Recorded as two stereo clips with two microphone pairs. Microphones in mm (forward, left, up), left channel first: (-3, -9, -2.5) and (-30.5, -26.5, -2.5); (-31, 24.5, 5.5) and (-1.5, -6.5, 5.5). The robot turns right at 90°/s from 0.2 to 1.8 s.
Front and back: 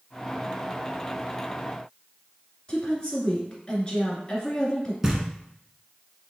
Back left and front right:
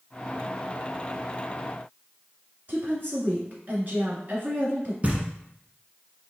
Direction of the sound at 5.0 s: 75° right.